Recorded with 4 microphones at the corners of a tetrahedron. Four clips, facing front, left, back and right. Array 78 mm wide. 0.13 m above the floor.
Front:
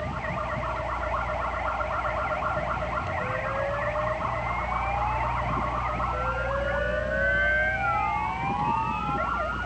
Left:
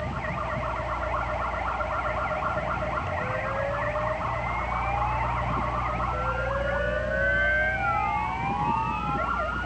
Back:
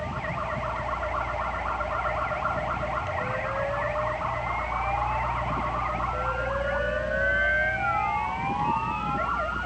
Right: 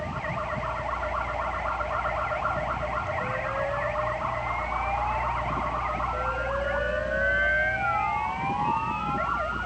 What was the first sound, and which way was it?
Only background noise.